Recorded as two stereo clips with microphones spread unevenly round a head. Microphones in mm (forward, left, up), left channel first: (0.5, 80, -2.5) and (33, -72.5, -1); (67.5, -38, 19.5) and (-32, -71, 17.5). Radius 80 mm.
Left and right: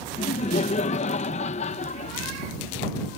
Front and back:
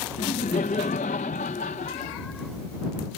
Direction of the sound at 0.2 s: 55° left.